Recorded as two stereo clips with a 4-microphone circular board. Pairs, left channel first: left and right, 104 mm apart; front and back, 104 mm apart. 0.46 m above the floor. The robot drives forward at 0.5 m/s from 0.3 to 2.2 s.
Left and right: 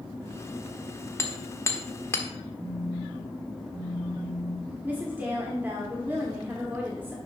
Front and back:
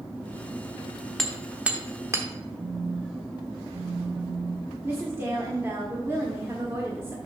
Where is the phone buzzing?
150° left, 3 m.